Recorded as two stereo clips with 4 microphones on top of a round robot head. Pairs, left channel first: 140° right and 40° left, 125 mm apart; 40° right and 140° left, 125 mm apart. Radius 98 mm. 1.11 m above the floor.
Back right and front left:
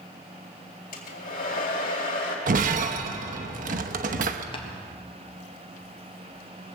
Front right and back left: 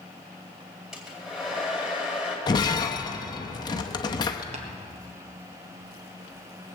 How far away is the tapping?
About 1.6 m.